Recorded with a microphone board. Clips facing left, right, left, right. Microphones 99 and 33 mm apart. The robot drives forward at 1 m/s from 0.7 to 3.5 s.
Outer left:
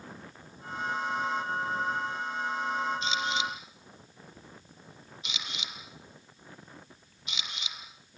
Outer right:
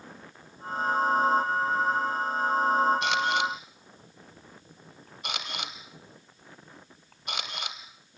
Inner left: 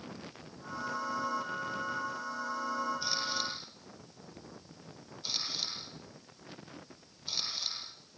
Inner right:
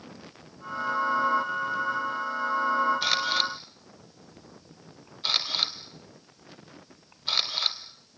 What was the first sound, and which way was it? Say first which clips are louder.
A camera shutter: outer right 5 dB, inner right 9 dB; 65° right (ahead or behind).